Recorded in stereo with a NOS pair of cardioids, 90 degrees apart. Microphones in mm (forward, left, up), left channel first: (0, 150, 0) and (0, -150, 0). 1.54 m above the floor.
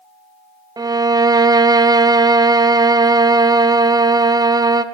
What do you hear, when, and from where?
0.8 s a violin: 15° right, 0.6 m